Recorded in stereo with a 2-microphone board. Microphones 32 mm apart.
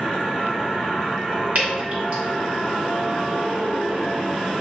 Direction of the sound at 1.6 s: 50° right (ahead or behind).